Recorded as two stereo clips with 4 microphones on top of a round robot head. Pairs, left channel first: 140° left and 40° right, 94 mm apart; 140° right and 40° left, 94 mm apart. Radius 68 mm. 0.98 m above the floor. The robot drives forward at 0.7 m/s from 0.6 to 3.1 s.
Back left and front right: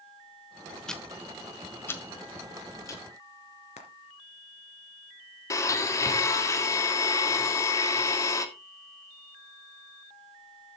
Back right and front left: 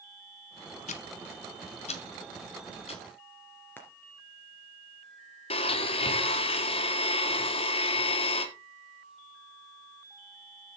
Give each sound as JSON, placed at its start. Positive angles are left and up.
{"t": 0.9, "sound": "ticking", "azimuth_deg": -140, "distance_m": 1.1}
{"t": 3.8, "sound": "frying", "azimuth_deg": 150, "distance_m": 2.5}
{"t": 5.5, "sound": "a blender", "azimuth_deg": -165, "distance_m": 1.8}